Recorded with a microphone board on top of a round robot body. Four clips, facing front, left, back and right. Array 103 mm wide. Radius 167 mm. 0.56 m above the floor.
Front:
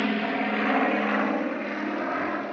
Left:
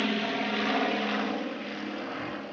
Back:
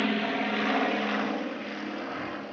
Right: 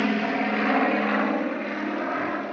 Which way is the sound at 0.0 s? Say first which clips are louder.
Right 5 dB, front 2 dB; 75° right.